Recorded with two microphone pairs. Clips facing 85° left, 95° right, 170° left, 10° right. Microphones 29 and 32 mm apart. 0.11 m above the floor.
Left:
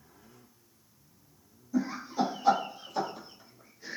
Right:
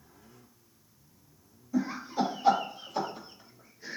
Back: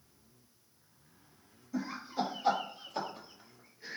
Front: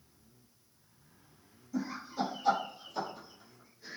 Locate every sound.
1.7 s laughter: 135° right, 2 m; by 4.0 s straight behind, 1.8 m